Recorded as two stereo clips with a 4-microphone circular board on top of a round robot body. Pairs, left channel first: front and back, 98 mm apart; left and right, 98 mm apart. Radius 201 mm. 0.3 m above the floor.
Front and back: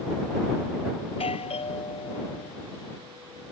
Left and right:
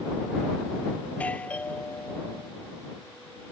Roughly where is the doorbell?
Ahead.